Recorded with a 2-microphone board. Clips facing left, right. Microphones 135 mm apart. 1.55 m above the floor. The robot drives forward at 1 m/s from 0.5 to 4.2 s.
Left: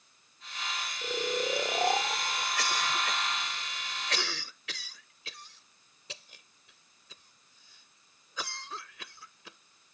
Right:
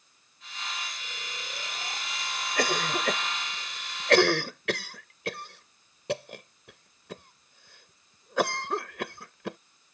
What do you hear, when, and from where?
1.0 s snoring: 80° left; by 2.5 s 65° left (ahead or behind)
2.6 s a cough: 55° right (ahead or behind); by 9.6 s 65° right (ahead or behind)